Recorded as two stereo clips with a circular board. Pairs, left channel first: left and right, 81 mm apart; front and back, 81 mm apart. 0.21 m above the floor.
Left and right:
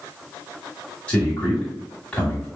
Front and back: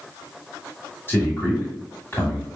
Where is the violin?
I don't hear a violin.